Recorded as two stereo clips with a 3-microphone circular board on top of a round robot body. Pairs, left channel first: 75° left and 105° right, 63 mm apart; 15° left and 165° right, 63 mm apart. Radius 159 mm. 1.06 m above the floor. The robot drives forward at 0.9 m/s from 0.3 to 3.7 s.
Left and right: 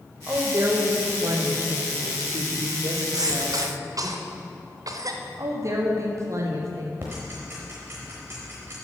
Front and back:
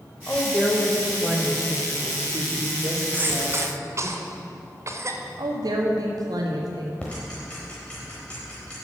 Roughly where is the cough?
Right.